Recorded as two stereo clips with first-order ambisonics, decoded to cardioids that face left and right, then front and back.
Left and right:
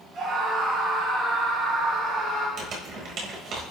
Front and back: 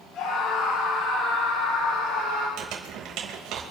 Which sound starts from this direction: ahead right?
A scream, at 0.1 s.